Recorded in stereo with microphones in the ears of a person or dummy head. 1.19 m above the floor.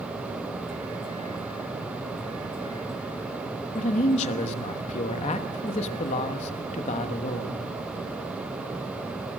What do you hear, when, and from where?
3.8 s a man speaking: 30° left (ahead or behind), 1.2 m